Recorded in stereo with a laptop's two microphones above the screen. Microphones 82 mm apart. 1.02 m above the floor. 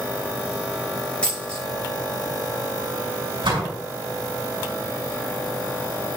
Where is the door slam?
80° right, 5.5 m.